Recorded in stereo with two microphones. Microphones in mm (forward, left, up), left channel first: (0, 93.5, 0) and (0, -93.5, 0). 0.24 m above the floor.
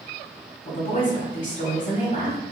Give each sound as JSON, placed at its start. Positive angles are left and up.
{"t": 0.7, "sound": "a woman speaking", "side_deg": 35, "distance_m": 1.2}